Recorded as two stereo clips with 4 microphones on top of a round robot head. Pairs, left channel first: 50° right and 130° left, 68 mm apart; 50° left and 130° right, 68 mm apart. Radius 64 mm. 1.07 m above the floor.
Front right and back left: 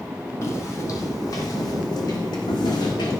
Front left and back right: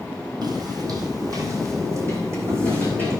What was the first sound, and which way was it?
Footsteps, 105° right.